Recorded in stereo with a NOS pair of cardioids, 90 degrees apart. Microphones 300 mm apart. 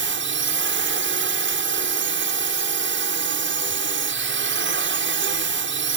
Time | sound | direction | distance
0.0 | a drone | 40° right | ?